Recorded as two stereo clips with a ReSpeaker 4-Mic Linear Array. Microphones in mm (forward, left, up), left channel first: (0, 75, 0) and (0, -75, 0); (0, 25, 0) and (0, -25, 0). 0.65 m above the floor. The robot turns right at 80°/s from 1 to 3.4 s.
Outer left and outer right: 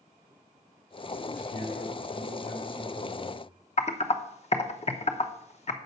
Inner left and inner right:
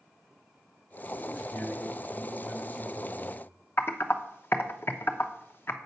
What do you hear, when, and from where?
1.3 s a man speaking: 35° left, 5.5 m; by 3.4 s 155° right, 5.5 m
3.8 s typing on a keyboard: 45° left (ahead or behind), 0.9 m